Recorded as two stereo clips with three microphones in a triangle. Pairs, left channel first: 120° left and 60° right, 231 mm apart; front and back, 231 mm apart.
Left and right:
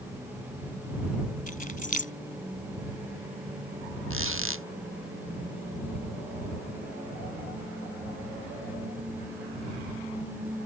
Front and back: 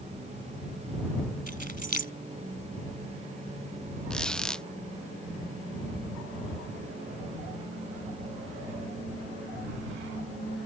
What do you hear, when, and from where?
1.5 s keys jangling: 160° left
4.1 s a squeak: 85° right